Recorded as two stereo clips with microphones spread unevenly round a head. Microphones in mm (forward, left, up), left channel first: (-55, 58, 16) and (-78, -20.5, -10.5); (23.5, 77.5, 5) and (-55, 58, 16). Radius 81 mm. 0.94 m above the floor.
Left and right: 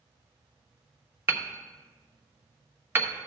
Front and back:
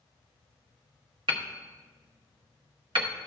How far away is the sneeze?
I don't hear a sneeze.